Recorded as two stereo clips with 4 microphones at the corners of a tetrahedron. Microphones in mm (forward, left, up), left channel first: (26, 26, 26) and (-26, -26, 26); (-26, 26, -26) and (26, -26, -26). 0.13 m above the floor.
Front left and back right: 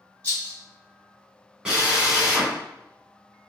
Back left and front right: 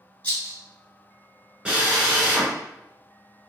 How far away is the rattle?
About 1.7 m.